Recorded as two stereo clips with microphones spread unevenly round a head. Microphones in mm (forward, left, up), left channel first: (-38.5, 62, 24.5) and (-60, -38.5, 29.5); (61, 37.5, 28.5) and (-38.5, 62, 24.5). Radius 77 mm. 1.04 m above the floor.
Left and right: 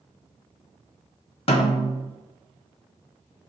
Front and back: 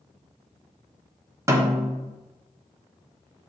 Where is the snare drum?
105° left, 1.4 m.